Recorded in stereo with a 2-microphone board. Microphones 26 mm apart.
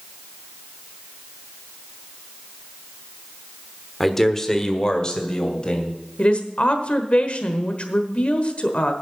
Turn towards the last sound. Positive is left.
turn(degrees=50)  # may be behind; listen again after turning